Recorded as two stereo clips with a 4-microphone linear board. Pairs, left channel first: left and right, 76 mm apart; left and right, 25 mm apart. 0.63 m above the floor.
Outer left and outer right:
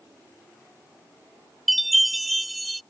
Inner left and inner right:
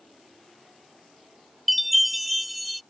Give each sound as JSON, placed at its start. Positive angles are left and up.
{"t": 1.7, "sound": "a chime", "side_deg": 0}